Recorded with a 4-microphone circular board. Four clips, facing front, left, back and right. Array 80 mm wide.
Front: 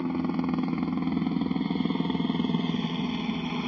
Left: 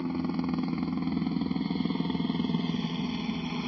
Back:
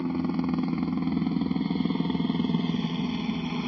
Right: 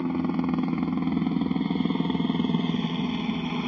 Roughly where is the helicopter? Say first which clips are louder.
Right 4 dB, even; right.